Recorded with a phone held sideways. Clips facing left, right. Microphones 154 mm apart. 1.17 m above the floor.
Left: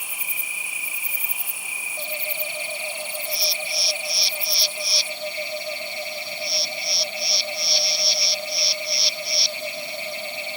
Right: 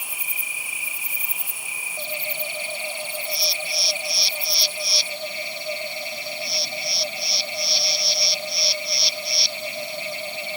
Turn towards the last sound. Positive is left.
No sound to turn to.